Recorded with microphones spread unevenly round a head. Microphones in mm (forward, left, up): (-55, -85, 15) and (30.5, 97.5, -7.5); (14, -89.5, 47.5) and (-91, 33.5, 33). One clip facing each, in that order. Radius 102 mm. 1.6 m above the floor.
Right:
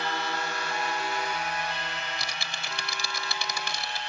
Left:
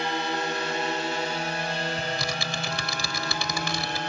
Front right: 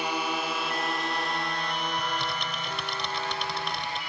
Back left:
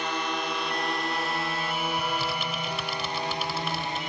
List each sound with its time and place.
0.0 s a drone: 30° left; by 4.1 s 75° left
2.0 s typing on a keyboard: 40° left